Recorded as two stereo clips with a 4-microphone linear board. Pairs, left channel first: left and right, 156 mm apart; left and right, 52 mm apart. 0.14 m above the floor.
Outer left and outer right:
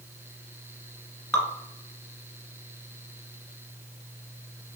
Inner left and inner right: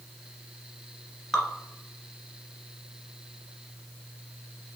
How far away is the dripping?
About 1.3 m.